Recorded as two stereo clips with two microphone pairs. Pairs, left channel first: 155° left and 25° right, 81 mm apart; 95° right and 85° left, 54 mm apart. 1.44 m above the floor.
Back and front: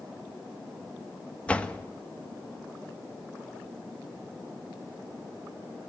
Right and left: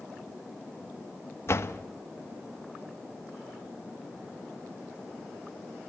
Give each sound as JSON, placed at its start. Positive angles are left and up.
{"t": 1.5, "sound": "a door slam", "azimuth_deg": -130, "distance_m": 1.2}